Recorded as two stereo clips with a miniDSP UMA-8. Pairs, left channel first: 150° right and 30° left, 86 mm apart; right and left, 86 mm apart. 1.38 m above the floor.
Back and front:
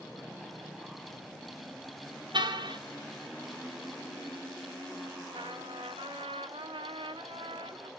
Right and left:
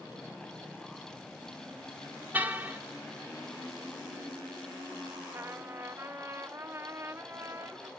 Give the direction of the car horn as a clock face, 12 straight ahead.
11 o'clock.